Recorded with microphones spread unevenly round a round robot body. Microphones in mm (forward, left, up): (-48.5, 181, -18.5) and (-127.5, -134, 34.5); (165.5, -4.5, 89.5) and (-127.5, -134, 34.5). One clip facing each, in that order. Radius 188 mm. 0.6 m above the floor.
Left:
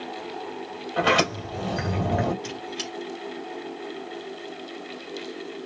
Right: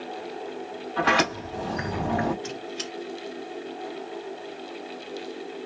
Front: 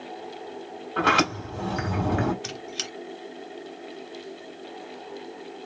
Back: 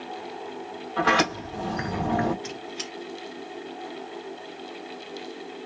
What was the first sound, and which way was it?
A sliding door, 40° left.